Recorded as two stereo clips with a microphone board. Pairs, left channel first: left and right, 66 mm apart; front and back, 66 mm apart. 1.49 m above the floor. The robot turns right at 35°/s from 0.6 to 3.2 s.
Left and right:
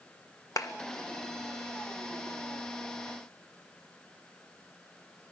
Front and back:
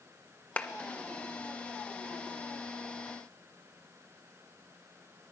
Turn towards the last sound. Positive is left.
turn(degrees=155)